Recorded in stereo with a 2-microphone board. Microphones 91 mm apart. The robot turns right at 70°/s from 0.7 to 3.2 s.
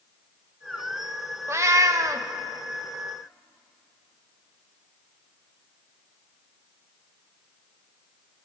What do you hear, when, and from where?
1.5 s a cat meowing: 125° right, 0.5 m; by 2.3 s 70° right, 0.5 m